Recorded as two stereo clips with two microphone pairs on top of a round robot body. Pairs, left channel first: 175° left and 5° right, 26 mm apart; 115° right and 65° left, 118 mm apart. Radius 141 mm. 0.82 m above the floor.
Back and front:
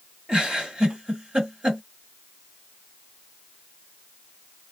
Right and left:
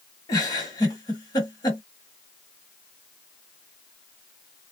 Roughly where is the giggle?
Ahead right.